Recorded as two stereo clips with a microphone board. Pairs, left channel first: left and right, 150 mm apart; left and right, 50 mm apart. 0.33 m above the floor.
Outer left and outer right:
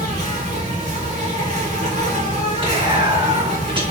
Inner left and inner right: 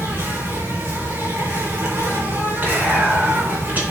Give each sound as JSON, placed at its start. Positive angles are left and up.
{"t": 0.0, "sound": "an insect", "side_deg": -50, "distance_m": 3.0}
{"t": 2.6, "sound": "whispering", "side_deg": -35, "distance_m": 3.5}